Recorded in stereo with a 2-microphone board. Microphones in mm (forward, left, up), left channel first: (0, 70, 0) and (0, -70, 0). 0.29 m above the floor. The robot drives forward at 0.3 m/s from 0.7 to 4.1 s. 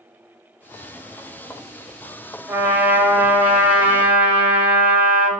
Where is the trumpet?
15° right (ahead or behind), 0.6 m; by 5.3 s 10° right (ahead or behind), 0.9 m.